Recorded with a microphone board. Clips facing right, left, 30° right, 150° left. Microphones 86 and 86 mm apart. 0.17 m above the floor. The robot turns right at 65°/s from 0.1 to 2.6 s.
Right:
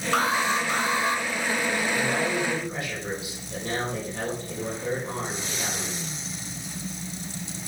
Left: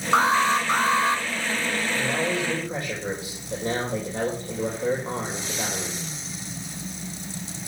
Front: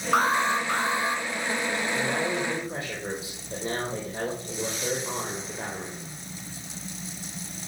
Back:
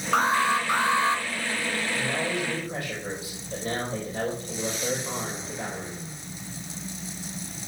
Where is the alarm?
55° left, 2.5 m; by 1.2 s 130° left, 2.5 m.